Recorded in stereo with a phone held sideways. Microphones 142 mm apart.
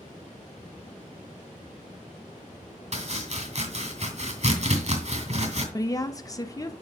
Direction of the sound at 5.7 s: 25° left (ahead or behind).